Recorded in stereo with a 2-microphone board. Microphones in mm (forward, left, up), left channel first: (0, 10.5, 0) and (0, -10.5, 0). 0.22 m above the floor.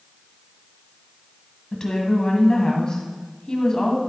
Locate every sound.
1.7 s a woman speaking: 35° left (ahead or behind), 1.6 m